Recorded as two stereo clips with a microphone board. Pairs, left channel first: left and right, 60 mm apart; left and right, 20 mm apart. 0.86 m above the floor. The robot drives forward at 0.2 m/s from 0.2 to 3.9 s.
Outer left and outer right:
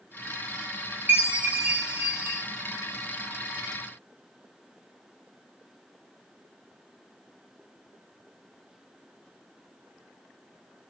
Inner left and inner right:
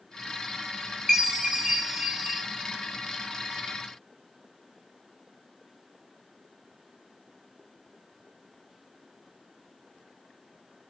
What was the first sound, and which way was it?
A chime, 25° right (ahead or behind).